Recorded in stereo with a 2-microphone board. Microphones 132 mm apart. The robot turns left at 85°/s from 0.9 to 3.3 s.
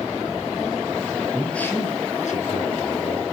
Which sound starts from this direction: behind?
A man speaking, at 1.3 s.